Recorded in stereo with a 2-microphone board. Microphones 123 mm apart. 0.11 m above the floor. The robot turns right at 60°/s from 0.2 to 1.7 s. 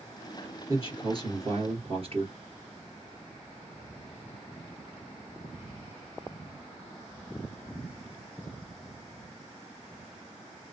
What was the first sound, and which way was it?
A man speaking, 145° right.